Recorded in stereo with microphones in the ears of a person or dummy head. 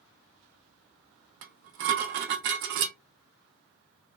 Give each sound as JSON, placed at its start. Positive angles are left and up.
{"t": 1.4, "sound": "dishes clattering", "side_deg": -65, "distance_m": 0.6}